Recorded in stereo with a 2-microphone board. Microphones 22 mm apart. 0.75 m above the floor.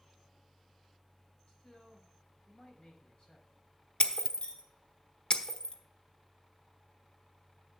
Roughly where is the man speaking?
Left.